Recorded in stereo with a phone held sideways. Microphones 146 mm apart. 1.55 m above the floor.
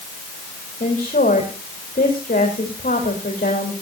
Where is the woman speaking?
70° left (ahead or behind), 3 m.